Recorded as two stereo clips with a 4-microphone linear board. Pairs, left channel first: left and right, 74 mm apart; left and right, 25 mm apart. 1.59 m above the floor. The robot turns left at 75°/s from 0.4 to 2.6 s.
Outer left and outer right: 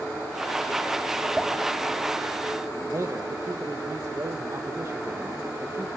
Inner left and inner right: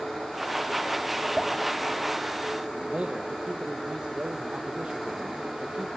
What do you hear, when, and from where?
1.4 s dripping: 15° right (ahead or behind), 3 m; by 1.6 s 5° left (ahead or behind), 3 m
2.9 s a man speaking: 45° right (ahead or behind), 1.3 m